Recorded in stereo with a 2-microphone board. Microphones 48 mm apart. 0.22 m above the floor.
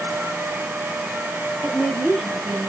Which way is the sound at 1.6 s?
25° left (ahead or behind).